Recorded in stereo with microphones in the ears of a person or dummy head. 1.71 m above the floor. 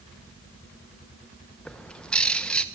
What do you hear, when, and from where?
1.6 s a bird: 5° left (ahead or behind), 1.0 m